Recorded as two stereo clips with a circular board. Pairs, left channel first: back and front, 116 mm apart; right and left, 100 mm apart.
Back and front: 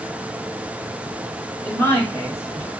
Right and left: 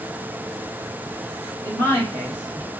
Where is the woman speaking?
135° right, 1.2 m; by 2.7 s 120° right, 1.6 m.